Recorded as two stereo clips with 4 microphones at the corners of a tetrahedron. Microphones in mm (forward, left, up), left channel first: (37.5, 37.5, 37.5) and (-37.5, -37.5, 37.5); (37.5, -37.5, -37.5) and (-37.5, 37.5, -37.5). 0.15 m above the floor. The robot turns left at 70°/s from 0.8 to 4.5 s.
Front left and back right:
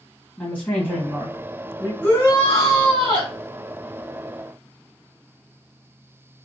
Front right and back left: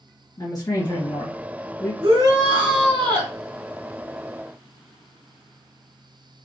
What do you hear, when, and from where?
0.4 s a woman speaking: 20° right, 2.0 m; by 1.9 s 100° right, 2.0 m
2.0 s a shout: 110° left, 1.3 m; by 3.3 s 15° left, 1.3 m